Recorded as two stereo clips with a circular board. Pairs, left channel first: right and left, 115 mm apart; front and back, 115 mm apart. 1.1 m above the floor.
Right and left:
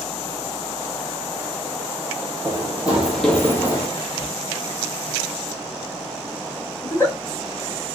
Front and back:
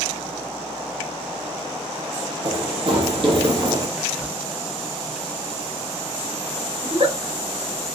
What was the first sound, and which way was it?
Running footsteps, 150° left.